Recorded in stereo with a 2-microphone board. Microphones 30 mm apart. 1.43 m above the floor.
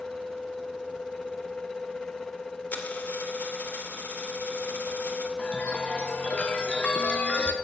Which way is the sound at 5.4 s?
40° left (ahead or behind).